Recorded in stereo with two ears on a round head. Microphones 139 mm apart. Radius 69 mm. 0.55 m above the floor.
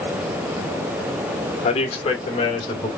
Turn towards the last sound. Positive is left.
turn(degrees=30)  # may be behind; listen again after turning